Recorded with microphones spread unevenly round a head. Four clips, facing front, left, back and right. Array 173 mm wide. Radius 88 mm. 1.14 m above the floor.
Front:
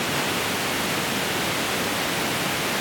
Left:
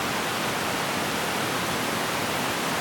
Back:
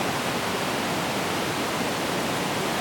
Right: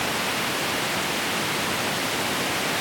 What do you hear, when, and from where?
Only background noise.